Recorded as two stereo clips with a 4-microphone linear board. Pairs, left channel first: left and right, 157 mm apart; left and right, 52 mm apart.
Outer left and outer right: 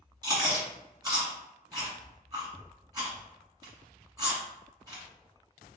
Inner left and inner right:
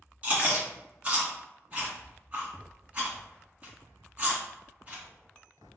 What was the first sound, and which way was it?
Chewing, 30° right (ahead or behind).